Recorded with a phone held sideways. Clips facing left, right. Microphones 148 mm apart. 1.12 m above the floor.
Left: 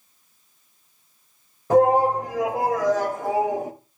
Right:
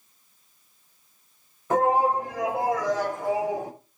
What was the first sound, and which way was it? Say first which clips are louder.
A shout: left 5 dB; 35° left (ahead or behind).